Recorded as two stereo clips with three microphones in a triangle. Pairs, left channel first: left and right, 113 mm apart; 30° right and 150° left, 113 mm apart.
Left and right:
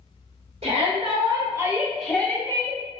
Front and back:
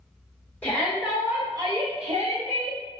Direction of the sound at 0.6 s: 105° right.